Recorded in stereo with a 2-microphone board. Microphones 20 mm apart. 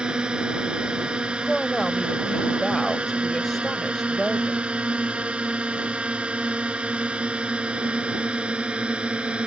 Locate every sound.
0.0 s a drone: 55° right (ahead or behind); by 9.5 s 70° right (ahead or behind)
1.4 s a woman speaking: 15° left (ahead or behind)